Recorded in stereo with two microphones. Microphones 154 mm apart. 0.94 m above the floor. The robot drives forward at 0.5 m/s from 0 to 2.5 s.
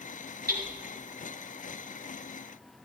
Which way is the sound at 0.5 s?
80° right.